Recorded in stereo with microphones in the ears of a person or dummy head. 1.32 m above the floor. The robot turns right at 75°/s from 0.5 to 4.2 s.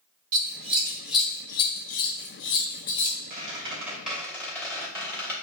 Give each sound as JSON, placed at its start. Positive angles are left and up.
{"t": 0.3, "sound": "scissors", "side_deg": -40, "distance_m": 1.1}
{"t": 3.3, "sound": "a squeak", "azimuth_deg": -55, "distance_m": 2.5}